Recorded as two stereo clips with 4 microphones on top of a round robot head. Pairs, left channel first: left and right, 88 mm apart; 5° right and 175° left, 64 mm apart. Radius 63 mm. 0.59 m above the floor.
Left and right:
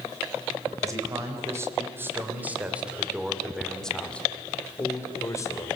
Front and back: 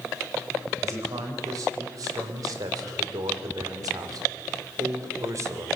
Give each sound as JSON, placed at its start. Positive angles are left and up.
{"t": 0.8, "sound": "a man speaking", "azimuth_deg": -145, "distance_m": 3.5}